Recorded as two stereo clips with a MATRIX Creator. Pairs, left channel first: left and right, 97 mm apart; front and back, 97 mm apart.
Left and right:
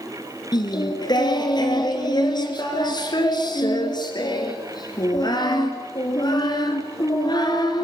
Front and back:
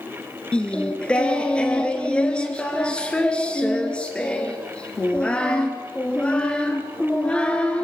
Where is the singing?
75° left, 2.5 m.